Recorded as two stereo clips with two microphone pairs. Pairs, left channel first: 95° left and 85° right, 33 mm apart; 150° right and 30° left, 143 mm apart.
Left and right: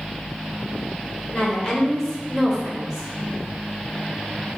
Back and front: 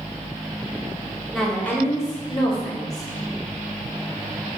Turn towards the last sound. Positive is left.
turn(degrees=-160)